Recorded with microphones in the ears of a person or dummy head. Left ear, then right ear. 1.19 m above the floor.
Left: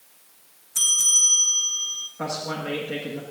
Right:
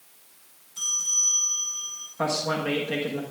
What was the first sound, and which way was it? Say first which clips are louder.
A bell: left 6 dB; 50° left (ahead or behind).